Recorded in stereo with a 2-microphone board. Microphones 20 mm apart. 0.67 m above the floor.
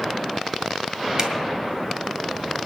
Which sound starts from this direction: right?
A zipper, at 1.2 s.